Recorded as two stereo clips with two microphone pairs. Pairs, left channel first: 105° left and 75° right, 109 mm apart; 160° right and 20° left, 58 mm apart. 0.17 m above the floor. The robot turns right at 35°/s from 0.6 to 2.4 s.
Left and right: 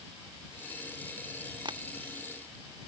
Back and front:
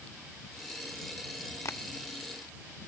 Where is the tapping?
125° right; by 1.8 s 120° right.